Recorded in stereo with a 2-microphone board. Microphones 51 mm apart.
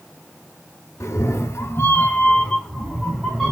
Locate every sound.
1.0 s a cat meowing: 70° left (ahead or behind), 0.9 m; by 3.5 s 5° right (ahead or behind), 1.6 m